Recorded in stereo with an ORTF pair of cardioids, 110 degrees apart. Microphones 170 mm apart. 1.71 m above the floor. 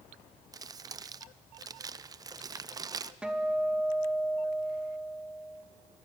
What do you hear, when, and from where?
0.5 s crumpling: 25° right, 0.7 m
3.2 s a guitar: 5° right, 2 m